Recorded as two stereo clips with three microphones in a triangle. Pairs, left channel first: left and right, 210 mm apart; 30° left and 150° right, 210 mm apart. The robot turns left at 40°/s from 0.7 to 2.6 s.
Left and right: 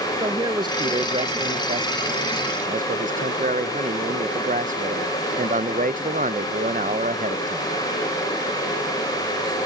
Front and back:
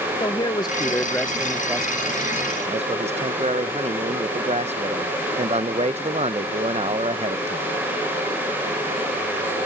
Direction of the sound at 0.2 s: 30° right.